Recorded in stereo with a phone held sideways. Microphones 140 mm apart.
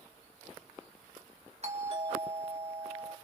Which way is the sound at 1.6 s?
50° right (ahead or behind).